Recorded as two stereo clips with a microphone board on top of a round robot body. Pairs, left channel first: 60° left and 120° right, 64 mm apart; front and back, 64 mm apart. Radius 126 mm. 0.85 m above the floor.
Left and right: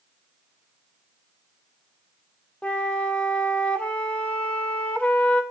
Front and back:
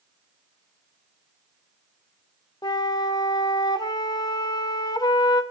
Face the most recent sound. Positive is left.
turn(degrees=-15)